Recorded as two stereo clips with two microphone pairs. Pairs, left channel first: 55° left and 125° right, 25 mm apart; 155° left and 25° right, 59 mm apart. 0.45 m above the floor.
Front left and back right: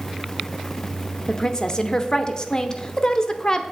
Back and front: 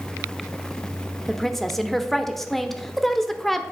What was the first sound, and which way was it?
A woman speaking, 70° left.